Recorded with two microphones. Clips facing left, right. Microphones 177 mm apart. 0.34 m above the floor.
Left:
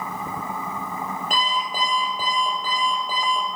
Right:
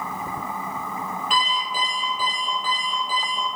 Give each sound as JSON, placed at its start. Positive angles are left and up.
{"t": 1.3, "sound": "an alarm clock", "side_deg": 45, "distance_m": 5.0}